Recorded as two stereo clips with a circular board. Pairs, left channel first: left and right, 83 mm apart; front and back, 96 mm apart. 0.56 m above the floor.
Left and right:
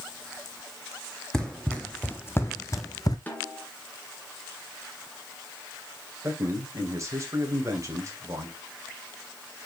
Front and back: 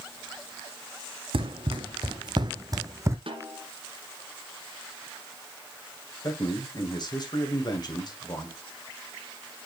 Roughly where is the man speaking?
Ahead right.